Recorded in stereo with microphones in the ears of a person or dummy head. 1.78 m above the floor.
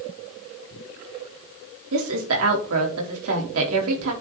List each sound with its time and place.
1.9 s a woman speaking: 85° right, 3.5 m